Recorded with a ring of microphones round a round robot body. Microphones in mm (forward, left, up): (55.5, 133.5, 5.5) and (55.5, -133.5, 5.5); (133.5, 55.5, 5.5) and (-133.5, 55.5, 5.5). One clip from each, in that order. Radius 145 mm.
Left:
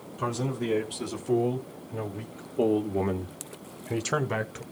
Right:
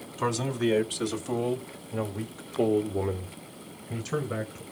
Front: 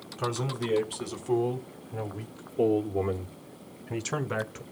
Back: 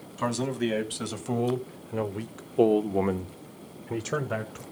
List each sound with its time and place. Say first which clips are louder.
0.2 s a man speaking: right 3 dB, back 3 dB; 135° right, 3.5 m; by 4.6 s 75° left, 1.9 m